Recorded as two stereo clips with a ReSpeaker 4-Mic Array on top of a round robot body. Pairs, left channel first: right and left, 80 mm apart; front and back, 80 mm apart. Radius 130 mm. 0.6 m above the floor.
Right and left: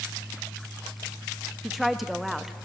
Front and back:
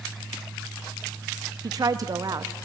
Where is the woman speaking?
Straight behind, 0.8 m.